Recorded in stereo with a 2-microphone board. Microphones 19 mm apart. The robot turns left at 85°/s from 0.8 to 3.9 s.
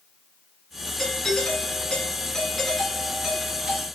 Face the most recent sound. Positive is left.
turn(degrees=-95)